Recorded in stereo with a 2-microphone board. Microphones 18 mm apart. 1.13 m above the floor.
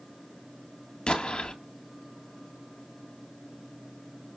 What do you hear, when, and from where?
1.1 s an explosion: 50° left (ahead or behind), 2.5 m